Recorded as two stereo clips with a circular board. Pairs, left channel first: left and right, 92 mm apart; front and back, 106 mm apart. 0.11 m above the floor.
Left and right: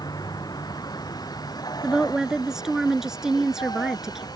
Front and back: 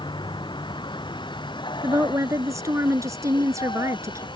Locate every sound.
0.0 s a vehicle: 45° left
1.8 s a woman speaking: 170° right